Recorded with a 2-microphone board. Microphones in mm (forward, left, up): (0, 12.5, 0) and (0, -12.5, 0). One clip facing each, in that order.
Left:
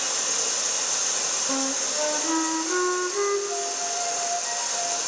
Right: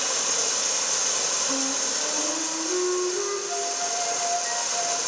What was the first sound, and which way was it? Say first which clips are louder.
Running water: right 1 dB; 25° right (ahead or behind).